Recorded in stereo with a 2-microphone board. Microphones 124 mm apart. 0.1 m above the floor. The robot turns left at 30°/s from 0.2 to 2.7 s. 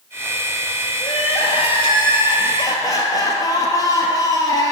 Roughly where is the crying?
Left.